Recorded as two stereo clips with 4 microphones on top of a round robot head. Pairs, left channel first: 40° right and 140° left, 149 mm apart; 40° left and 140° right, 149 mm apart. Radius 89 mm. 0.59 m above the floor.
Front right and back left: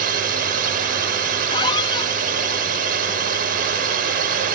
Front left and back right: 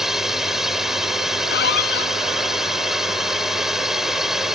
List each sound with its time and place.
0.0 s a drone: 135° left
1.5 s a squeak: 20° left